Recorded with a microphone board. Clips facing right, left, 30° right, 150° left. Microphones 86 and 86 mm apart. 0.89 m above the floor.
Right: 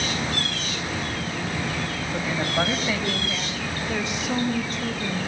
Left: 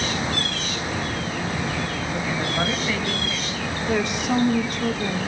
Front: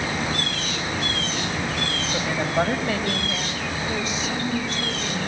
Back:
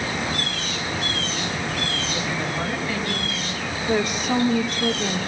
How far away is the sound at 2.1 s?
About 4.5 m.